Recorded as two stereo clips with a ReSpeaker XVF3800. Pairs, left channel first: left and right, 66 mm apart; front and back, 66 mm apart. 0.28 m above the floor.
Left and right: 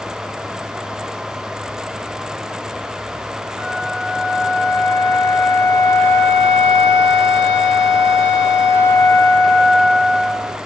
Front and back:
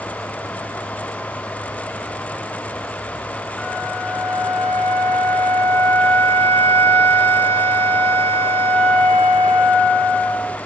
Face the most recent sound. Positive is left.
turn(degrees=-100)